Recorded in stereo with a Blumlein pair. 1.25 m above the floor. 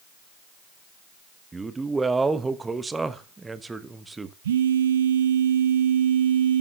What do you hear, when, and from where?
1.5 s a man speaking: 10° right, 1.1 m
4.4 s a phone buzzing: 60° right, 1.6 m